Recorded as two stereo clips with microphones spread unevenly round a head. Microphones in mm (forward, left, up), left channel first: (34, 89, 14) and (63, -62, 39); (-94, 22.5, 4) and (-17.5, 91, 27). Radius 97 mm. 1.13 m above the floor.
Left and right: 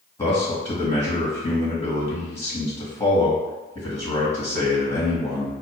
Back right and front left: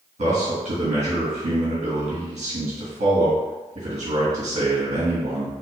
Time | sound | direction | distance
0.2 | a man speaking | 35° left | 1.9 m